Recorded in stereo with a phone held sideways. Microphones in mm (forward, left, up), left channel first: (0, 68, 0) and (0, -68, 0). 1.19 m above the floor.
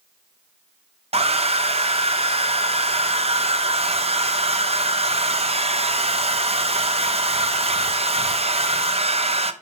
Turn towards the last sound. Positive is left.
turn(degrees=-50)  # may be behind; listen again after turning